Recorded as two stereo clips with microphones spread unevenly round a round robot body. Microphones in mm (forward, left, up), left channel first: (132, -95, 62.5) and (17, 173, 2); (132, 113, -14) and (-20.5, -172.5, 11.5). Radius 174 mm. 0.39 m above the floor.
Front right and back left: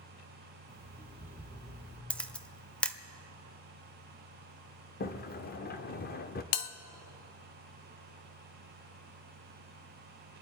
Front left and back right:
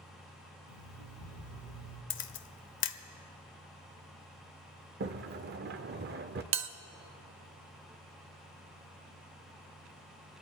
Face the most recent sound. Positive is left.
turn(degrees=-70)